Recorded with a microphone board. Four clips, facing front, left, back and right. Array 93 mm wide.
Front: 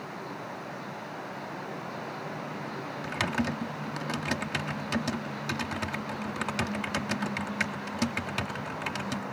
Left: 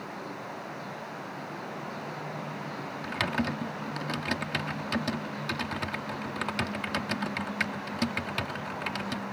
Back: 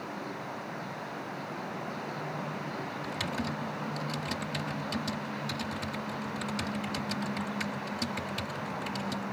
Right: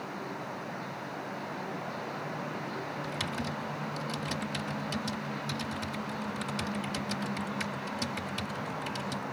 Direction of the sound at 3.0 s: 45° left.